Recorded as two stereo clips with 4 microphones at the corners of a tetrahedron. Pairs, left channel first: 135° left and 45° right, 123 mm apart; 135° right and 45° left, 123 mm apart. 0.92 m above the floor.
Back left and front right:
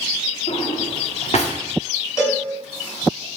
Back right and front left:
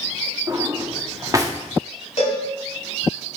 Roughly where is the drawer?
Left.